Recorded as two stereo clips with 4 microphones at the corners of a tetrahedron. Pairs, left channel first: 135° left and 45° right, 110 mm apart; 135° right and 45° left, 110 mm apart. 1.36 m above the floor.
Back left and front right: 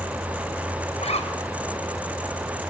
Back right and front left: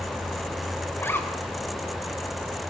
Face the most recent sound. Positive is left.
turn(degrees=155)